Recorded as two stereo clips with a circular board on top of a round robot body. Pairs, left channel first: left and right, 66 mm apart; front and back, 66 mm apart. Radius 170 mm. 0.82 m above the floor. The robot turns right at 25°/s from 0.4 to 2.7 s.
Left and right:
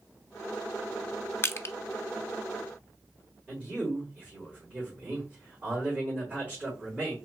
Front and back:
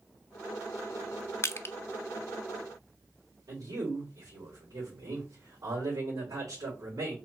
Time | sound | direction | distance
1.4 | crushing | 40° left | 0.7 m
3.5 | a man speaking | 155° right | 3 m